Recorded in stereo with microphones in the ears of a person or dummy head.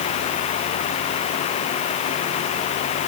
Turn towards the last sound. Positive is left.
No sound to turn to.